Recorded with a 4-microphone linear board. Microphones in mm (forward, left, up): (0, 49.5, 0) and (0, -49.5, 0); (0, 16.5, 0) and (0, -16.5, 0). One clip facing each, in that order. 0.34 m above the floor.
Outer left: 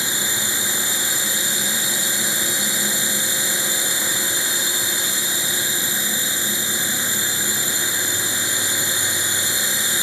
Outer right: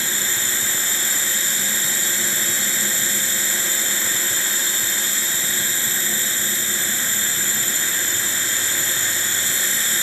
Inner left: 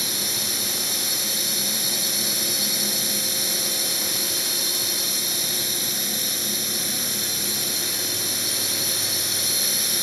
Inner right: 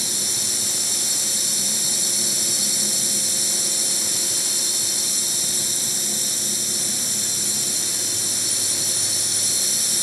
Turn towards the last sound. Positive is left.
turn(degrees=15)  # may be behind; listen again after turning